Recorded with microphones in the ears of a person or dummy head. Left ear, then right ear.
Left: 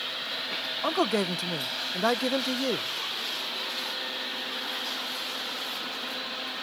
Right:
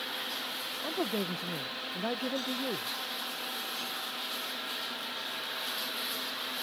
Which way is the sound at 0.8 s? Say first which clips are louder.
Left 8 dB; 45° left (ahead or behind).